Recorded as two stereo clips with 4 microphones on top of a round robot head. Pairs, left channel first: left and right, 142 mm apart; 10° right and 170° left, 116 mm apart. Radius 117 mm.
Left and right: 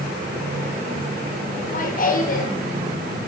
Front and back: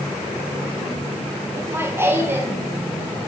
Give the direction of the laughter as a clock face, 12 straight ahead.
9 o'clock.